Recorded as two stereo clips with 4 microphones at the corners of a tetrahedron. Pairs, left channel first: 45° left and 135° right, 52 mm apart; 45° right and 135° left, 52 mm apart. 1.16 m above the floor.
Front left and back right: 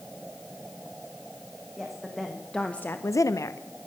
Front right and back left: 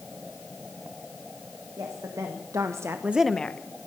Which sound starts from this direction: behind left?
A woman speaking, at 1.8 s.